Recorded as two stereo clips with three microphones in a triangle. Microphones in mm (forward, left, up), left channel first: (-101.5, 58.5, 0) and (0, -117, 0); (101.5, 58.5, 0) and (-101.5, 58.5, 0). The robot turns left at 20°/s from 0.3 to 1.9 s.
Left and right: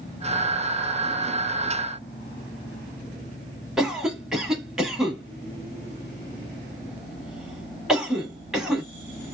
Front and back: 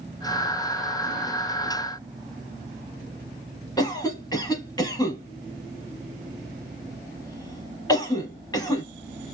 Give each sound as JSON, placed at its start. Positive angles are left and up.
{"t": 3.8, "sound": "a cough", "azimuth_deg": 25, "distance_m": 1.2}